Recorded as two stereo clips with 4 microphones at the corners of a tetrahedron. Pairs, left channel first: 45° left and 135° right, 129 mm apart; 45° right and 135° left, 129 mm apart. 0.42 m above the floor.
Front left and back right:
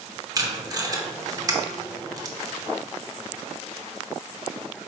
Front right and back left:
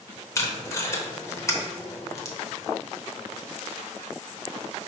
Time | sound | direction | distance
0.3 | tape being pulled | 95° right | 0.7 m